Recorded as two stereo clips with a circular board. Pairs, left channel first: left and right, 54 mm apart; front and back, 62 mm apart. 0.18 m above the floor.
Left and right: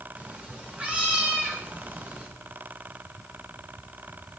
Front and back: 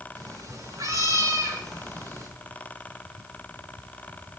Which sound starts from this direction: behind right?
A cat meowing, at 0.1 s.